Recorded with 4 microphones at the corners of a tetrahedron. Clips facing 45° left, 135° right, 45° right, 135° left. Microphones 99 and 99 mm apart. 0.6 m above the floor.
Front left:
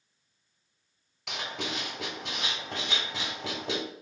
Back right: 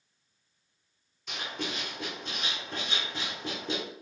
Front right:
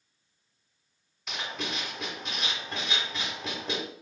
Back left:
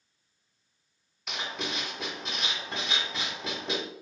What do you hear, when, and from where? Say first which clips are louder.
1.3 s writing: front left 1 dB, even; 45° left, 1.1 m